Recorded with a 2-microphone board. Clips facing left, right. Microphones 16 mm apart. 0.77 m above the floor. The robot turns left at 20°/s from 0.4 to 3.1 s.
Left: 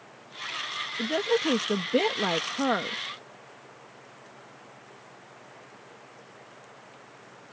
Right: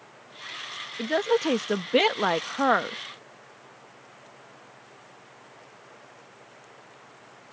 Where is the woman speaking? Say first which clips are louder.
Right 2 dB; 70° right; by 3.0 s 110° right.